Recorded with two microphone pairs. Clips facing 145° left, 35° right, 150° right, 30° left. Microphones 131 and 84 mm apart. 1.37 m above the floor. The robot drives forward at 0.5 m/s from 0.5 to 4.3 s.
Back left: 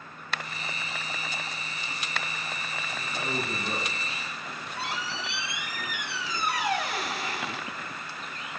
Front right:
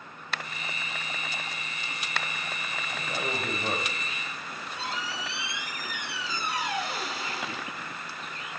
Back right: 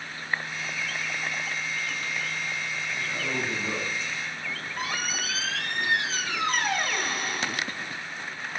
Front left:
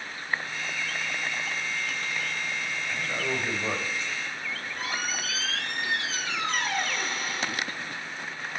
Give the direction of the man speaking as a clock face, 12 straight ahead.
1 o'clock.